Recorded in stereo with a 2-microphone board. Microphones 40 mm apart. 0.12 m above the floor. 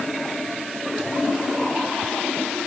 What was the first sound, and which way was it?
Only background noise.